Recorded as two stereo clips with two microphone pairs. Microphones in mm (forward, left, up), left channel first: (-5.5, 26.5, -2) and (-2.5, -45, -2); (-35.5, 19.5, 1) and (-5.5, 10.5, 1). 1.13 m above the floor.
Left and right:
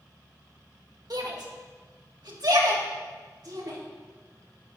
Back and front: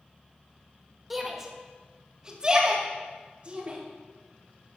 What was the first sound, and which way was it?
A shout, 100° right.